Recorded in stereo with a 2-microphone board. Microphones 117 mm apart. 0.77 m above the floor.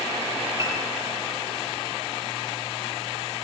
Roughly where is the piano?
Right.